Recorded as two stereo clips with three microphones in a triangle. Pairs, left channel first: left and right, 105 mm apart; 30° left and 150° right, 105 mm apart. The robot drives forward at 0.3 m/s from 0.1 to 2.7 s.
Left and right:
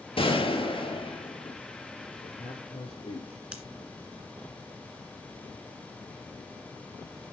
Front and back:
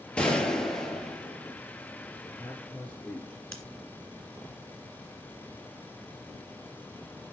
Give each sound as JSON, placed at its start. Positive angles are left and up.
{"t": 0.2, "sound": "a gunshot", "azimuth_deg": 110, "distance_m": 1.7}
{"t": 2.2, "sound": "a man speaking", "azimuth_deg": 110, "distance_m": 3.0}
{"t": 3.5, "sound": "scissors", "azimuth_deg": -45, "distance_m": 1.7}